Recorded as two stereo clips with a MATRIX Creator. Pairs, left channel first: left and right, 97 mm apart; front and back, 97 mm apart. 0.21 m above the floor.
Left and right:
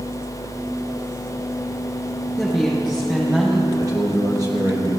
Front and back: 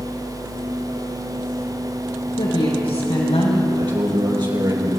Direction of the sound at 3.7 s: 145° right.